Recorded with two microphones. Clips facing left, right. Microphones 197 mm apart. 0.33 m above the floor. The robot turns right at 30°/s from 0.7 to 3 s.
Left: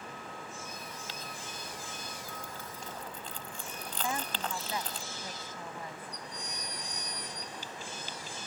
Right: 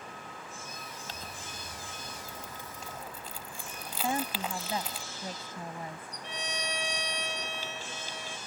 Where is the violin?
80° right.